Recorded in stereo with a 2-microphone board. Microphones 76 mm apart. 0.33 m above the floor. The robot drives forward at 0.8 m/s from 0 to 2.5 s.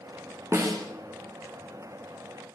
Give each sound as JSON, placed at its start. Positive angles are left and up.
{"t": 0.5, "sound": "a snare drum", "side_deg": -35, "distance_m": 4.5}